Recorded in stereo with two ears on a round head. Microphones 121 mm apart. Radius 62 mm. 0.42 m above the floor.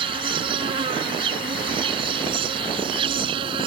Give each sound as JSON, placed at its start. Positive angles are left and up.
{"t": 0.0, "sound": "an insect", "side_deg": -40}